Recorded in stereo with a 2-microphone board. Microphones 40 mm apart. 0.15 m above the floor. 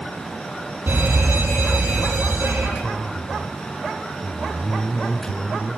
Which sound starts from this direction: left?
A man speaking, at 2.8 s.